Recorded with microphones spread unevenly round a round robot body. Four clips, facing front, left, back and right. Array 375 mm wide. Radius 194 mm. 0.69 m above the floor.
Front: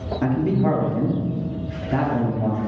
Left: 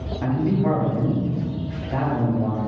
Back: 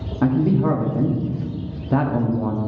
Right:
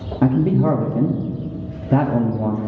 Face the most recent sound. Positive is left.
turn(degrees=-95)